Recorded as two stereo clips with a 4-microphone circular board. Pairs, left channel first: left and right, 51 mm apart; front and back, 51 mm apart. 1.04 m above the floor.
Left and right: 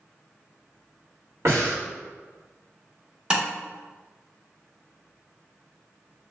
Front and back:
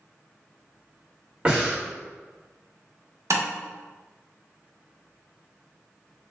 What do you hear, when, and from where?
1.4 s breathing: 110° right, 1.7 m
3.3 s tapping: 165° right, 1.0 m